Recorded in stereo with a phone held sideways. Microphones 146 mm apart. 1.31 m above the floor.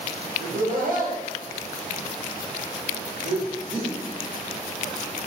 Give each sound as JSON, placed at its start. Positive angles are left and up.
{"t": 0.4, "sound": "laughter", "side_deg": -65, "distance_m": 1.1}